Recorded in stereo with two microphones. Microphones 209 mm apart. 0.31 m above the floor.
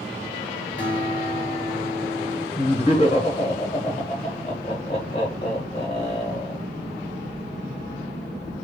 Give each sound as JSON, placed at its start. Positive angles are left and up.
{"t": 0.8, "sound": "a guitar", "side_deg": 20, "distance_m": 2.0}
{"t": 2.6, "sound": "laughter", "side_deg": 30, "distance_m": 1.3}